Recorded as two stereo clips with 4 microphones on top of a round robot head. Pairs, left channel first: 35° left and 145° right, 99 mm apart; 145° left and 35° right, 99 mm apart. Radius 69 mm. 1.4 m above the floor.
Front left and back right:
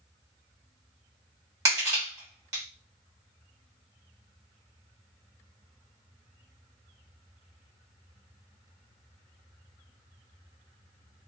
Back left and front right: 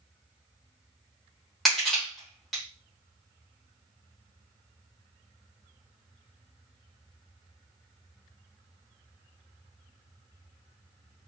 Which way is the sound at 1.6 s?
125° right.